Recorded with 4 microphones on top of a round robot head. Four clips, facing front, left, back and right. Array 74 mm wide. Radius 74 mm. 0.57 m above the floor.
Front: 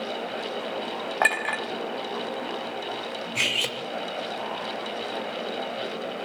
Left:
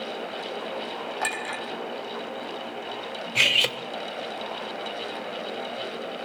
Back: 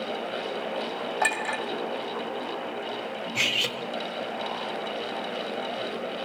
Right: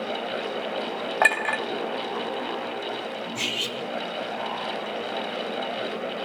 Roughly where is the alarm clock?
No alarm clock in this recording.